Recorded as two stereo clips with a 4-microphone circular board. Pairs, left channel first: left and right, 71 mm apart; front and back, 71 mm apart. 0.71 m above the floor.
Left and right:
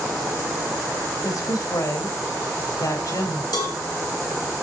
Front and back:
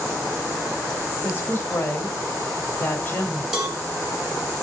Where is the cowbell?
100° left, 3 m.